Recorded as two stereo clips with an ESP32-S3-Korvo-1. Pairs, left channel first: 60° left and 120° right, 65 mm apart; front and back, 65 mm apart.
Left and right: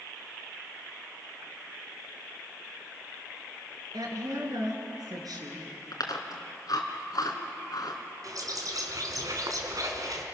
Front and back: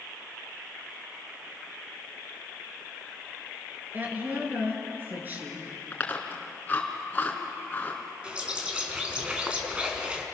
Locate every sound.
3.9 s a woman speaking: 120° right, 4.5 m
5.9 s chewing: 60° left, 3 m
8.2 s a bird: 110° right, 3 m